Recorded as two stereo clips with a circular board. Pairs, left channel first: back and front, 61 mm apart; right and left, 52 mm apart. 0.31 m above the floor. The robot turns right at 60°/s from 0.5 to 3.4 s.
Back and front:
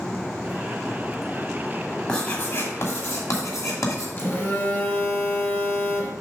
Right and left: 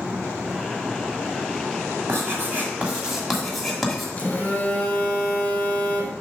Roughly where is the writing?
Left.